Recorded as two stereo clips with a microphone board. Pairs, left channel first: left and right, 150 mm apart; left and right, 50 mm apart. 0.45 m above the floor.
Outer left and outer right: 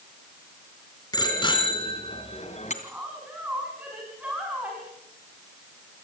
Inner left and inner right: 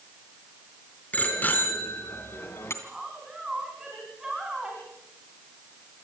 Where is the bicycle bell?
30° left (ahead or behind), 4 m; by 2.7 s 55° left (ahead or behind), 2.5 m.